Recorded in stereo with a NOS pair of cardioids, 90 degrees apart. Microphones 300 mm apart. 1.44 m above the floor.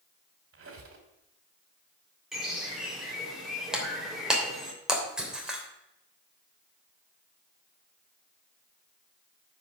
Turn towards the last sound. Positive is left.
turn(degrees=-5)